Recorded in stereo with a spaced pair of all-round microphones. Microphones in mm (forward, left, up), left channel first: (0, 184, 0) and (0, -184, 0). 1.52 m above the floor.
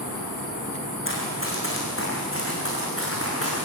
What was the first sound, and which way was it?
Running footsteps, 35° left (ahead or behind).